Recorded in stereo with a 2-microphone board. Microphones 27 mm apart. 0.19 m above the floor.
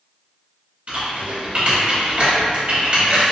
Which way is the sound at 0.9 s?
45° right (ahead or behind).